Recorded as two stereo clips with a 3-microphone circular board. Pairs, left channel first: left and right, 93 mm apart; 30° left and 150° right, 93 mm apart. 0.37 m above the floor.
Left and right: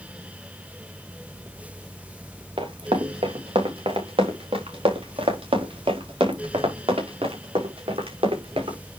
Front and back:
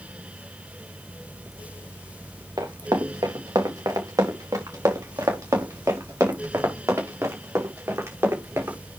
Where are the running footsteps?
105° right, 3.5 m; by 8.8 s 85° right, 6 m.